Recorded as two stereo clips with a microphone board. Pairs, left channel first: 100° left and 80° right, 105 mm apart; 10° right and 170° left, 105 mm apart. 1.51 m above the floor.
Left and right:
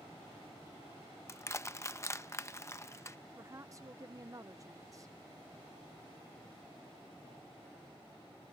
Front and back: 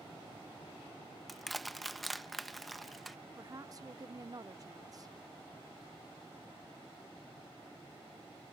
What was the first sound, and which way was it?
Crushing, 75° left.